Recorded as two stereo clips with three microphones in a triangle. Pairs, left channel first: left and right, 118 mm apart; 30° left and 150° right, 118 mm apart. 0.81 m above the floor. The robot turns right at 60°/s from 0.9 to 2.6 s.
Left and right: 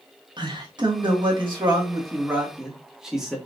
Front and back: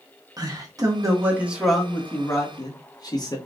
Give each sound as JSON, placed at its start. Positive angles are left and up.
{"t": 0.4, "sound": "a man speaking", "azimuth_deg": -110, "distance_m": 1.4}